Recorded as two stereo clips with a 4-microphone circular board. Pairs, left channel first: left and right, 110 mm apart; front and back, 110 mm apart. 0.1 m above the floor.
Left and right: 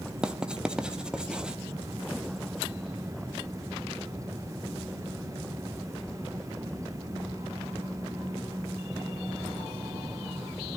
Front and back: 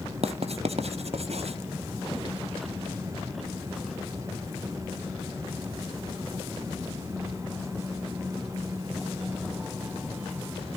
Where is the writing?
175° right, 1.1 m.